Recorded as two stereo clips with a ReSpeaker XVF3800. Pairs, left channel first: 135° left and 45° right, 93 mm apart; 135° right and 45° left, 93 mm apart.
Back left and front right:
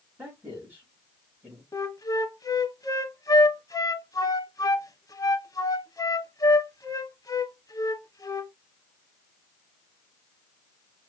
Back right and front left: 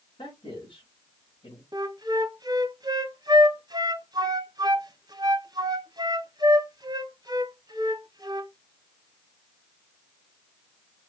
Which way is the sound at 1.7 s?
85° left.